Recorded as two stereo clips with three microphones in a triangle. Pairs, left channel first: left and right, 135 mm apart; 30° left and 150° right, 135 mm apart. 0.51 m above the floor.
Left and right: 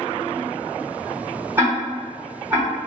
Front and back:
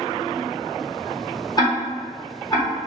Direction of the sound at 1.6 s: 25° right.